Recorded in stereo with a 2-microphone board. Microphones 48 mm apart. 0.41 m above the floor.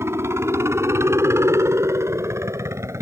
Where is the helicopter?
60° right (ahead or behind); by 3.0 s 70° right (ahead or behind).